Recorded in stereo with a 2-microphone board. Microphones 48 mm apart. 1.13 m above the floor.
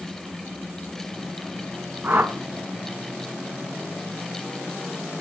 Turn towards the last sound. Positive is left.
turn(degrees=-35)  # may be behind; listen again after turning